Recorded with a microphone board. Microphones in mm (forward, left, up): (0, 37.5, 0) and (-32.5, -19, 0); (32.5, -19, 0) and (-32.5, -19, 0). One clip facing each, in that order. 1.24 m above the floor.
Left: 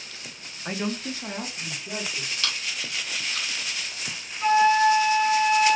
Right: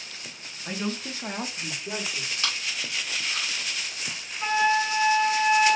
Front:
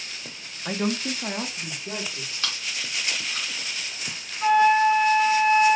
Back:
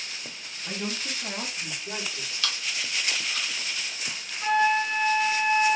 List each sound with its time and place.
0.7 s a man speaking: 5° left, 0.6 m; by 2.3 s 80° right, 1.4 m
2.4 s chewing: 55° right, 1.6 m
4.4 s a flute: 55° right, 2 m